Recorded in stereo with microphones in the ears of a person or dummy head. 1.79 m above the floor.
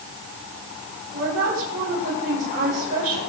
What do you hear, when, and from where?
1.1 s a woman speaking: 45° right (ahead or behind), 7.5 m